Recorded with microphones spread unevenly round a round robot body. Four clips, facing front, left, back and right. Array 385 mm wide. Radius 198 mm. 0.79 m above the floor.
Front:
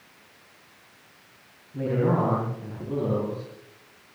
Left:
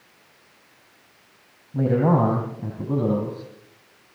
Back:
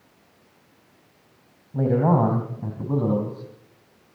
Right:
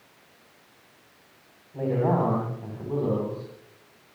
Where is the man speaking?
135° left, 4.5 m; by 3.4 s 145° left, 6.5 m.